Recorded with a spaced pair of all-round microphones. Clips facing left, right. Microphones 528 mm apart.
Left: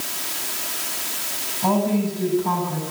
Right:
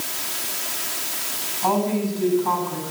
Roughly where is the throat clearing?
I don't hear throat clearing.